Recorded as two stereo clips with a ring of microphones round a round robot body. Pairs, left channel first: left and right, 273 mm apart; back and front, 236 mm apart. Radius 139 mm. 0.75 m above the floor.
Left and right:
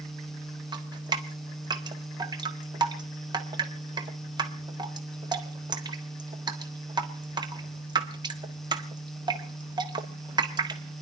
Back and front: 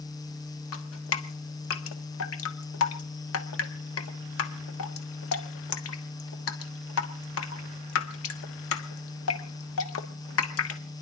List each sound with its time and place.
0.7 s dripping: 165° right, 1.4 m